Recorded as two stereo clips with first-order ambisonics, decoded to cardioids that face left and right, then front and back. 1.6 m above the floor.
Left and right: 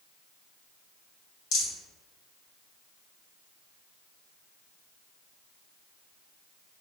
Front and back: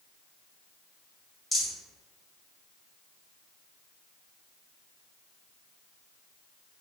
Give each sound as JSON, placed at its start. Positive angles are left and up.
{"t": 1.5, "sound": "a rattle", "azimuth_deg": 85, "distance_m": 1.8}